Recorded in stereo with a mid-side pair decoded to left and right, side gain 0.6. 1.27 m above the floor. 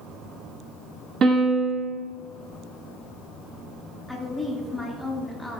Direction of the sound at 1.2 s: 45° right.